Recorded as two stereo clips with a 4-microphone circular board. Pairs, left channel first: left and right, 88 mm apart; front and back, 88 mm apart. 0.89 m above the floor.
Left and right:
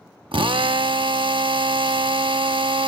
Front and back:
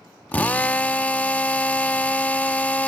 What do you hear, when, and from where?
0.3 s a drill: 70° right